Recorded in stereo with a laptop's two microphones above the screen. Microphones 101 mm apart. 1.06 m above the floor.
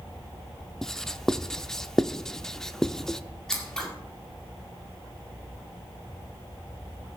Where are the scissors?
5° left (ahead or behind), 2 m.